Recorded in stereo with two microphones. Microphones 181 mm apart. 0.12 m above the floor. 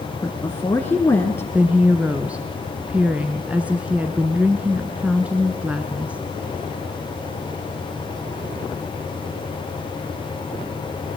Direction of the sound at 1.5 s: 5° right (ahead or behind).